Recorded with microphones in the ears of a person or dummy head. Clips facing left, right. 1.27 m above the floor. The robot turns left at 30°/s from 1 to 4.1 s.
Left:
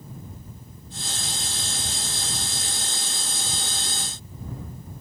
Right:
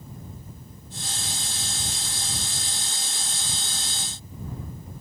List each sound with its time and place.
Only background noise.